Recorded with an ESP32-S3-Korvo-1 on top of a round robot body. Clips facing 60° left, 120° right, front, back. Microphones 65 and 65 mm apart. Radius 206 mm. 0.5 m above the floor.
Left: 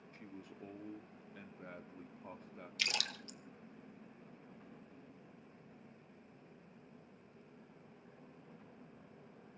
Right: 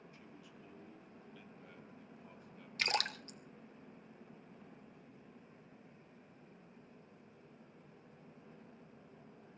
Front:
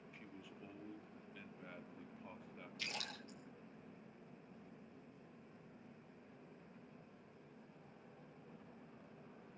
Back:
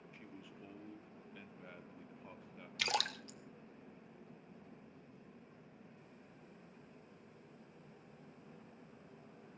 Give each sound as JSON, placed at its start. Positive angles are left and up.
{"t": 0.1, "sound": "a man speaking", "azimuth_deg": 90, "distance_m": 1.7}
{"t": 2.8, "sound": "a splash", "azimuth_deg": -170, "distance_m": 1.9}